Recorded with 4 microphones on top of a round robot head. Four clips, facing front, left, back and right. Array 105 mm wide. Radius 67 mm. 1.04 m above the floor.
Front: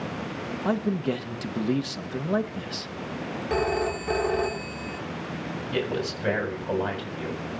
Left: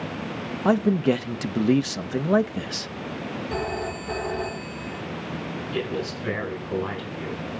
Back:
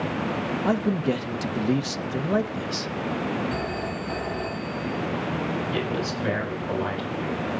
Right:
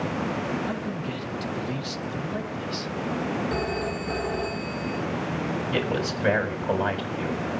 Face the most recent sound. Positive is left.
turn(degrees=-80)